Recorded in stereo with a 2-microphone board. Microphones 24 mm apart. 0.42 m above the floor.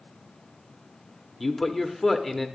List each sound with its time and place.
1.4 s a man speaking: 15° left (ahead or behind), 0.8 m